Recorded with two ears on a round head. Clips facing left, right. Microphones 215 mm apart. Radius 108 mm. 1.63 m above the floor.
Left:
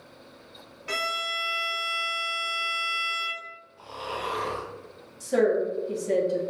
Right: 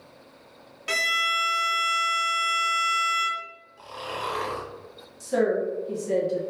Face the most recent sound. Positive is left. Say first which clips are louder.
# left 1 dB
turn(degrees=-10)  # may be behind; listen again after turning